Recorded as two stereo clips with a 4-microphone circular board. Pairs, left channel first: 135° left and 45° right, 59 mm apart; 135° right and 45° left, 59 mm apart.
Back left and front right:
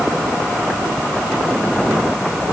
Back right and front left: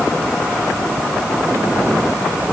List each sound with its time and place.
Only background noise.